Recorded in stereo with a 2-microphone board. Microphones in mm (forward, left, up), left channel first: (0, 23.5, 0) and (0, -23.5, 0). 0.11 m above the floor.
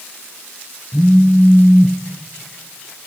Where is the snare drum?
I don't hear a snare drum.